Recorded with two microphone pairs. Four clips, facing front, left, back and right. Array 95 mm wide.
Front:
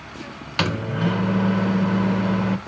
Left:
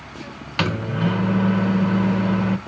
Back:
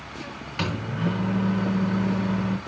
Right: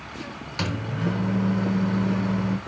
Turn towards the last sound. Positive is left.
turn(degrees=45)